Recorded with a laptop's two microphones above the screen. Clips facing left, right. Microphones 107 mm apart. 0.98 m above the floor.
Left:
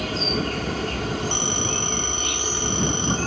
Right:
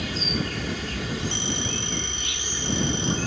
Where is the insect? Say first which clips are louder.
Left 4 dB; 55° left (ahead or behind).